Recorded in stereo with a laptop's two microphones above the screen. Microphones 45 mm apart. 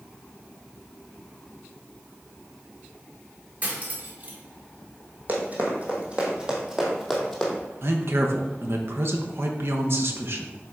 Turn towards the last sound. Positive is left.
turn(degrees=-55)  # may be behind; listen again after turning